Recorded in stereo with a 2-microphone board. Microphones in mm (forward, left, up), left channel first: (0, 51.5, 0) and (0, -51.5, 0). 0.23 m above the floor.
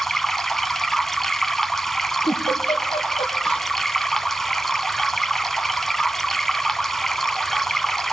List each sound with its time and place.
0.0 s running water: 5° left (ahead or behind), 0.7 m
2.2 s a giggle: 80° left, 3 m